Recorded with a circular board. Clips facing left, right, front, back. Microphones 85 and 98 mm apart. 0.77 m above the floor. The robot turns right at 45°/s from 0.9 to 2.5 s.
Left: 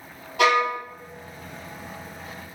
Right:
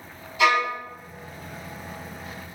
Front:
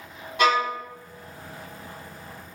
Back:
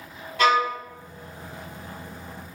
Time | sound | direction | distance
0.4 | a violin | 70° left | 1.3 m